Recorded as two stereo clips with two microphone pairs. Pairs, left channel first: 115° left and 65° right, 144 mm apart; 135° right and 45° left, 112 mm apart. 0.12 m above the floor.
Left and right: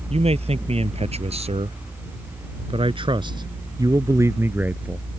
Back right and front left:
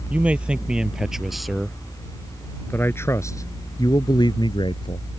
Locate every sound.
0.1 s a man speaking: 30° right; by 5.1 s 145° right